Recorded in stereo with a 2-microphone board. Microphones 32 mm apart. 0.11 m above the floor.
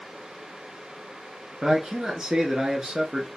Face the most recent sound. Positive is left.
turn(degrees=-20)  # may be behind; listen again after turning